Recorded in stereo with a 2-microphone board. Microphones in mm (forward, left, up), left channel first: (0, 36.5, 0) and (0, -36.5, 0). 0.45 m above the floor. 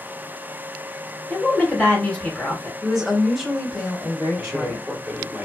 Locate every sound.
1.3 s a woman speaking: 5° left (ahead or behind), 1.8 m
2.8 s a woman speaking: 5° left (ahead or behind), 1.7 m
4.3 s a man speaking: 15° right (ahead or behind), 1.3 m